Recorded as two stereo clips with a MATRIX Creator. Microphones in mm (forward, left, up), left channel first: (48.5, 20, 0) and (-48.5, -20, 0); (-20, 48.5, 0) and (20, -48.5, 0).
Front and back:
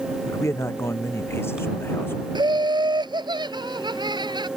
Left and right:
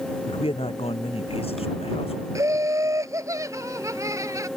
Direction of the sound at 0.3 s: 85° left.